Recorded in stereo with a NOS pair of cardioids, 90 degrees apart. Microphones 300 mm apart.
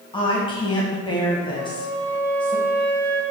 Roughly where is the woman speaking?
Ahead.